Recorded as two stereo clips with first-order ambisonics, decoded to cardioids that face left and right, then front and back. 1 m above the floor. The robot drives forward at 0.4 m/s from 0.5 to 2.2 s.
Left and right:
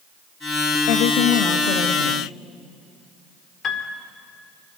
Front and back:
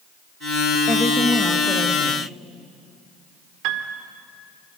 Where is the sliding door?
I don't hear a sliding door.